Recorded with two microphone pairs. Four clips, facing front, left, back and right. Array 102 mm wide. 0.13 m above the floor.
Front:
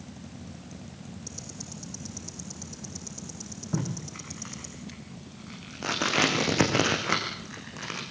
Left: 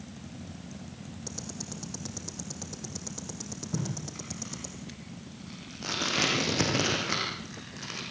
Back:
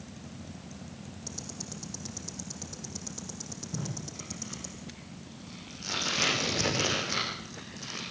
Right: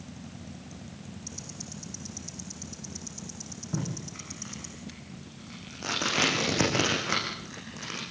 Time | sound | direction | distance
1.3 | ticking | 105° left | 5 m
3.7 | tape being pulled | 10° right | 7.5 m